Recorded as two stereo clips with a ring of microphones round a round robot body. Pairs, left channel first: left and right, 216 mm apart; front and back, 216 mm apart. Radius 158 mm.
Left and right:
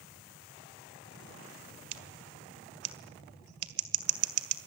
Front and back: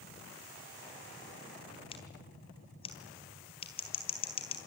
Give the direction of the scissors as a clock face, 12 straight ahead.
2 o'clock.